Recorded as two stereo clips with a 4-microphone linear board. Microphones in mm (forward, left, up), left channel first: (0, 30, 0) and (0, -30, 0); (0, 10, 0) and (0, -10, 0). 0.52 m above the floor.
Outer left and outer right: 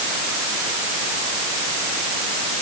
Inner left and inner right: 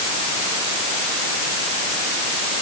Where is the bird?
No bird in this recording.